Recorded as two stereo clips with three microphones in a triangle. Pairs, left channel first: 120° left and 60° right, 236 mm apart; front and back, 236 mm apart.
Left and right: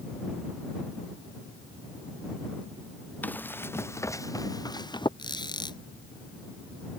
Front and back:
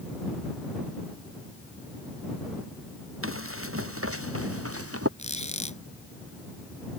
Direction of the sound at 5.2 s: 55° left.